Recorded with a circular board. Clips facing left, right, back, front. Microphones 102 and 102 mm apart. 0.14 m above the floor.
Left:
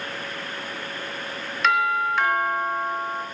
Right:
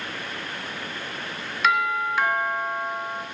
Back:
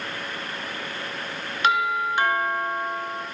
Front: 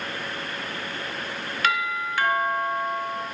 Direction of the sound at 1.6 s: 170° right.